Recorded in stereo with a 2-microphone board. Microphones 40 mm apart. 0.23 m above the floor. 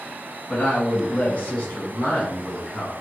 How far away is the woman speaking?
About 1.4 m.